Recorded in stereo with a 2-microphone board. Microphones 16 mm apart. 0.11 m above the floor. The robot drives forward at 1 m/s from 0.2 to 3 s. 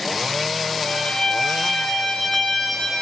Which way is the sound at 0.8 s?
55° left (ahead or behind).